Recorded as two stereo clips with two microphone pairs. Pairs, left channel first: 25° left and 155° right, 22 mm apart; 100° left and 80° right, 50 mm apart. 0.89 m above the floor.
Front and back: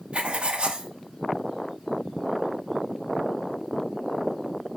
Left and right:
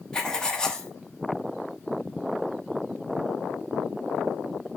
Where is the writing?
175° left, 1.0 m.